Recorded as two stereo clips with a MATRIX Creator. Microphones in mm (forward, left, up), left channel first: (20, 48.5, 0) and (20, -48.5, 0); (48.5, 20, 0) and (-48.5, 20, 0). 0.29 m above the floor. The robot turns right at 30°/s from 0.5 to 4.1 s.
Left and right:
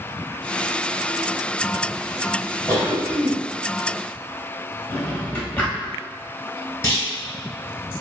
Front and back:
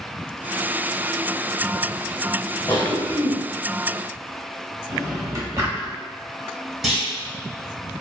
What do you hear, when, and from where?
2.7 s a cough: 50° left, 1.0 m; by 3.4 s 70° left, 1.0 m
4.9 s a drawer: 150° left, 0.8 m
6.8 s a clunk: 105° left, 1.4 m